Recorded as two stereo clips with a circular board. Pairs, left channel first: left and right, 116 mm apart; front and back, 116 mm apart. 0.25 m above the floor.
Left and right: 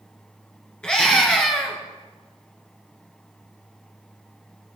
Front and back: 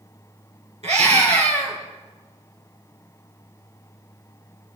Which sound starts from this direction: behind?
A scream, at 0.8 s.